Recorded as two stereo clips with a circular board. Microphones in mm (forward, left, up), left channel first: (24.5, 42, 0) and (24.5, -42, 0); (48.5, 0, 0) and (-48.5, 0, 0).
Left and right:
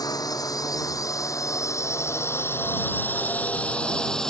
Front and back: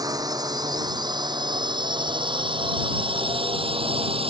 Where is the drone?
130° left; by 4.3 s 175° left.